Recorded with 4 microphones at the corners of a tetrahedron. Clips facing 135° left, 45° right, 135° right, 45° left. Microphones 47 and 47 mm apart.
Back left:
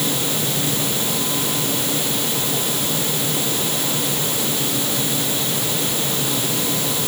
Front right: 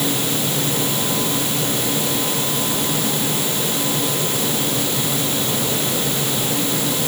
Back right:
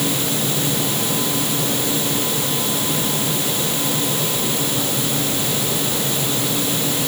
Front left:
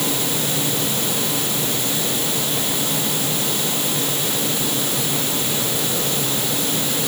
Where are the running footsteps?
I don't hear running footsteps.